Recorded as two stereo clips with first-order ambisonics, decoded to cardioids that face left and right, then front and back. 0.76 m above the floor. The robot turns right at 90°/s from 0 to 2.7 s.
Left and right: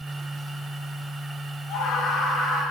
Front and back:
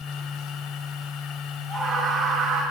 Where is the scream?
85° left, 1.3 m; by 2.6 s 170° left, 1.3 m.